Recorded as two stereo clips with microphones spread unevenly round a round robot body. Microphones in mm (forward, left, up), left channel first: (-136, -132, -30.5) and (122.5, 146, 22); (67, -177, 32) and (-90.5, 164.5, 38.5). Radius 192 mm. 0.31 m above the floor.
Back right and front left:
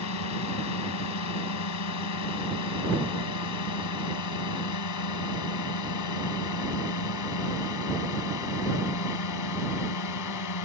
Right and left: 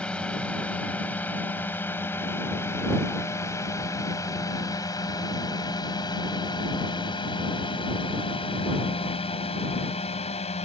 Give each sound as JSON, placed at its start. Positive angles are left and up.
{"t": 0.0, "sound": "a drone", "azimuth_deg": -150}